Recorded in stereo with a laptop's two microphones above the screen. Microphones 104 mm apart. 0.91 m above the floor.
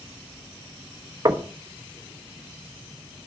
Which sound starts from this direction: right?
Knocking, at 1.2 s.